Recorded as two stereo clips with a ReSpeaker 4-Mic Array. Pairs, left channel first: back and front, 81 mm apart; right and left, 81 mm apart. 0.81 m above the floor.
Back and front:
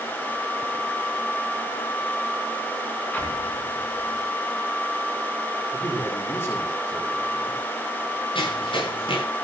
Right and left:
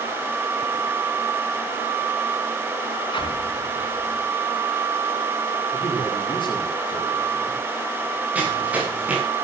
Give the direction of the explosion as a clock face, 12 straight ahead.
4 o'clock.